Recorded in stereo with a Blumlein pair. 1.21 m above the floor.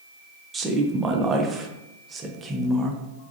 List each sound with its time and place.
0.5 s a woman speaking: 15° right, 0.6 m